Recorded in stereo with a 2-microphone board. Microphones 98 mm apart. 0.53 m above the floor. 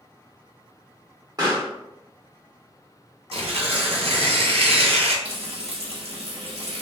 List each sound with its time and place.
1.4 s a pop: 40° right (ahead or behind), 1.8 m
3.3 s tearing paper: 75° right (ahead or behind), 0.7 m
5.2 s frying: 85° right, 0.8 m